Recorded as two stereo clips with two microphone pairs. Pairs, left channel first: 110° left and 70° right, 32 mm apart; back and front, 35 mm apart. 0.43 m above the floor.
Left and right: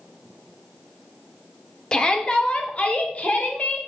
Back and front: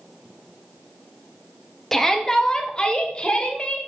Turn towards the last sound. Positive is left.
turn(degrees=130)